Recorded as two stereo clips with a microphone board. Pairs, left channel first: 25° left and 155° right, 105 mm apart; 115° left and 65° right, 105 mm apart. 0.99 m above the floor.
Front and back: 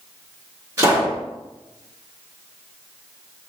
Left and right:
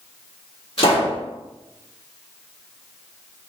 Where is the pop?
145° left, 1.5 m.